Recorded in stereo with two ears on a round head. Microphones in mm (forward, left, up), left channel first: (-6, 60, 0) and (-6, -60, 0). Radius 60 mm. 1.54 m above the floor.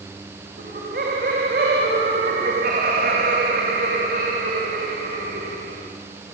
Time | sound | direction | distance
0.6 | laughter | 80° right | 3.5 m